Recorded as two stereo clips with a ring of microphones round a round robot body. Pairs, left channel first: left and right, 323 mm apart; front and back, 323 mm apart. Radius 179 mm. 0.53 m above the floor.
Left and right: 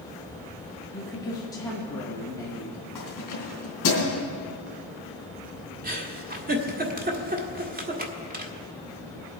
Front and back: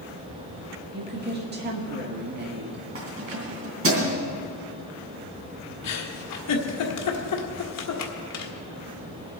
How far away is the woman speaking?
About 1.4 m.